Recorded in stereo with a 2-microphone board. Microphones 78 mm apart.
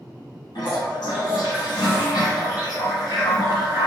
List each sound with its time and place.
0.6 s a toilet flushing: 80° left, 1.4 m